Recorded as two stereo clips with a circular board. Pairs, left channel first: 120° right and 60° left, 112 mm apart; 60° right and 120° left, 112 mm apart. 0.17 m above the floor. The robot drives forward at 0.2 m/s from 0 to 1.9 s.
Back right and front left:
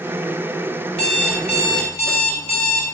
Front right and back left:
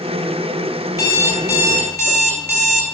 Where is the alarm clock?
120° right, 1.7 m; by 2.8 s 125° right, 1.8 m.